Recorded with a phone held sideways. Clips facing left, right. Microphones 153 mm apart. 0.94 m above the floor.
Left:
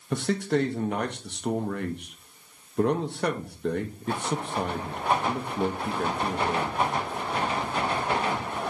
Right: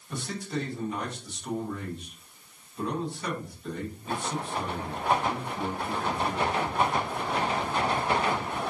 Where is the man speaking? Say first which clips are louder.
Left 8 dB; 65° left (ahead or behind), 0.7 m.